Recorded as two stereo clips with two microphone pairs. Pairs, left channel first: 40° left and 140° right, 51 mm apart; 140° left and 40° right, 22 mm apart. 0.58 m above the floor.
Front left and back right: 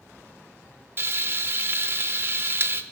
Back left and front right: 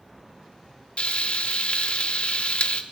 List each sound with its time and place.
1.0 s frying: straight behind, 0.6 m